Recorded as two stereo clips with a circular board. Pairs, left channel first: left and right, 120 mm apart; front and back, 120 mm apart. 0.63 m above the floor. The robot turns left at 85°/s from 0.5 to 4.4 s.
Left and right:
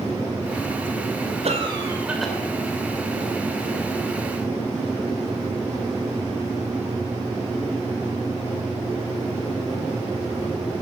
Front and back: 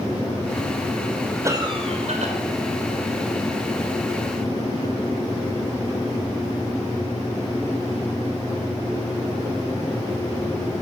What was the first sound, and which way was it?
A cough, 115° right.